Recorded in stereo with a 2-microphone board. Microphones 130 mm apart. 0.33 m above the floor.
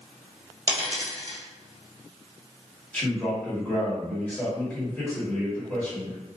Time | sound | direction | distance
0.7 | a dropped coin | 35° right (ahead or behind) | 1.3 m
2.9 | a man speaking | 10° left (ahead or behind) | 1.3 m